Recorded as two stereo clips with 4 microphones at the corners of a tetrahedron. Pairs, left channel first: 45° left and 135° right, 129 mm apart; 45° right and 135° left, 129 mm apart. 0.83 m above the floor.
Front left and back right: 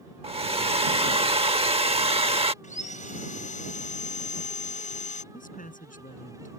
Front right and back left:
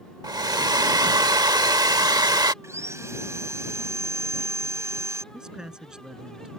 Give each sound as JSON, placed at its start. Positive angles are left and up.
{"t": 0.2, "sound": "a hair dryer", "azimuth_deg": -170}
{"t": 2.6, "sound": "sawing", "azimuth_deg": 65}
{"t": 5.3, "sound": "a man speaking", "azimuth_deg": 50}